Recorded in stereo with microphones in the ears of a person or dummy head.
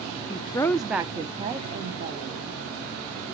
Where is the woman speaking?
25° left (ahead or behind), 0.7 m; by 2.6 s 45° right (ahead or behind), 1.8 m.